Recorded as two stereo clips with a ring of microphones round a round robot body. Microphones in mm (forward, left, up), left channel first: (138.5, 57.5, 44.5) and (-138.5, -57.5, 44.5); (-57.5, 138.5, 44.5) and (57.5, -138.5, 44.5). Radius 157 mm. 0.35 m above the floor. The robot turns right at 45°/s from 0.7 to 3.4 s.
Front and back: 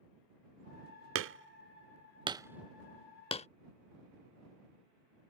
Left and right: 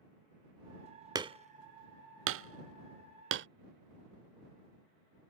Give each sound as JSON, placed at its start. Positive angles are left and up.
{"t": 1.1, "sound": "hammering", "azimuth_deg": -140}